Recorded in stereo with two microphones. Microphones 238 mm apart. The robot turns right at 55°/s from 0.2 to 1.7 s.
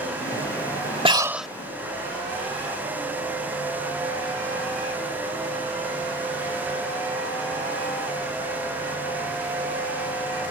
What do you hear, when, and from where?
1.1 s breathing: 20° right (ahead or behind); by 1.5 s centre (ahead or behind)